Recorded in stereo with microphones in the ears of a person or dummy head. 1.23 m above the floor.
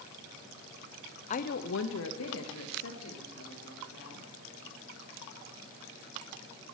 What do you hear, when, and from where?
1.3 s a woman speaking: 40° left (ahead or behind), 0.6 m; by 4.2 s 85° left, 4 m